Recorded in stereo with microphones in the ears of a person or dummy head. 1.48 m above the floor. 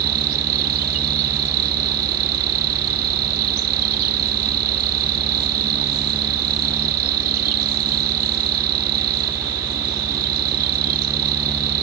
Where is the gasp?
I don't hear a gasp.